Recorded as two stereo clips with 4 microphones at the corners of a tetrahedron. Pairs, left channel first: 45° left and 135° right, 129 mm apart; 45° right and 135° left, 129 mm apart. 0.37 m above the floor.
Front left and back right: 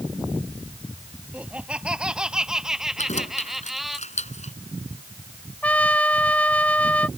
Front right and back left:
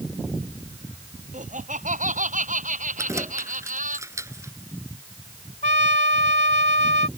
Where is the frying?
I don't hear frying.